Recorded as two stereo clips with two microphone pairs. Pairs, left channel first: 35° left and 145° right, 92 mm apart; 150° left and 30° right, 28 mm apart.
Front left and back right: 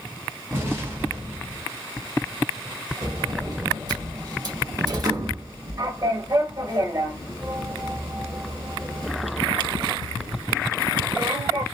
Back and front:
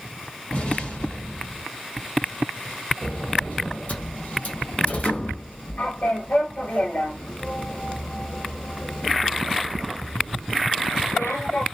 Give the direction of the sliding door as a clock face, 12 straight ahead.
6 o'clock.